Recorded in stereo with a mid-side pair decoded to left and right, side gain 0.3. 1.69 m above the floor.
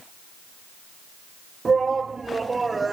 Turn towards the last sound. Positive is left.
turn(degrees=-35)